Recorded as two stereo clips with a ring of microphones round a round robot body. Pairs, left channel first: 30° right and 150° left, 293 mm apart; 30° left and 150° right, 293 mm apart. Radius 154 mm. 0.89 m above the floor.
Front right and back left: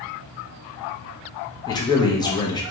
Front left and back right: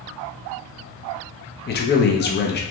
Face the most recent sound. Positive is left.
turn(degrees=35)